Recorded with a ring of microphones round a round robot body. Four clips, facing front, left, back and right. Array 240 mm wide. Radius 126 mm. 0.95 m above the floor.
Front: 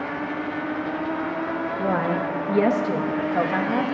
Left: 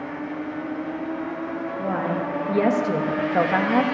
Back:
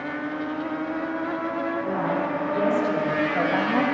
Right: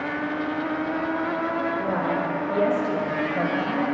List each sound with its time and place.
1.8 s a woman speaking: 15° left, 1.3 m; by 3.8 s 95° left, 1.2 m